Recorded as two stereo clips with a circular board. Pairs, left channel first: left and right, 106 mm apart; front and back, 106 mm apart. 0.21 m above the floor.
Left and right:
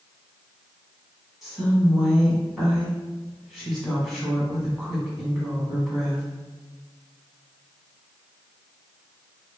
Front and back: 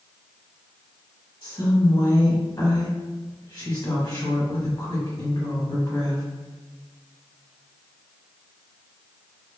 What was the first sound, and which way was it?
A woman speaking, straight ahead.